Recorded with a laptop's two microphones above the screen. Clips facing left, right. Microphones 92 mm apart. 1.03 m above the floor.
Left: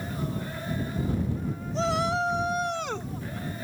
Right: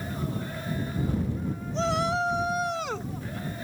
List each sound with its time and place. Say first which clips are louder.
1.7 s a shout: even; centre (ahead or behind)